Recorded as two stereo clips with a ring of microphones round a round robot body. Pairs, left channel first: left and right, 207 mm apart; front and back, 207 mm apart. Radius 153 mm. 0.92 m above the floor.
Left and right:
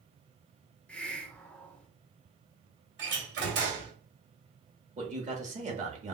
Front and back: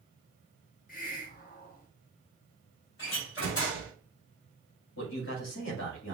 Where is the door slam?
55° right, 2 m.